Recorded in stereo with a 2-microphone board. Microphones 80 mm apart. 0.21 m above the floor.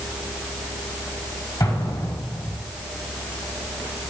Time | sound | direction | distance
1.6 | an explosion | 50° left (ahead or behind) | 4.5 m